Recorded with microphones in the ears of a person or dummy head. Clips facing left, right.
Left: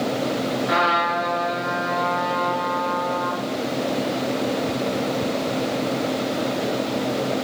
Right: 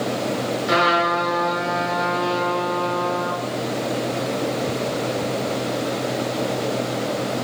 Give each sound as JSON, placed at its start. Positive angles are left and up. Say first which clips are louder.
{"t": 0.7, "sound": "a trumpet", "louder": "right 2 dB", "side_deg": -40, "distance_m": 6.0}